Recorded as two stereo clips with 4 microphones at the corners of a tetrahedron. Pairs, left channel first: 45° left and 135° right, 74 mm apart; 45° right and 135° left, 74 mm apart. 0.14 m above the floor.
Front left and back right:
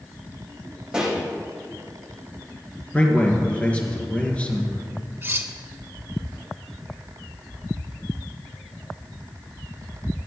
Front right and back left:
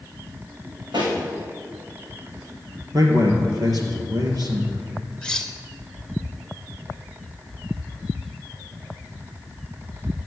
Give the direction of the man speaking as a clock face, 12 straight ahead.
8 o'clock.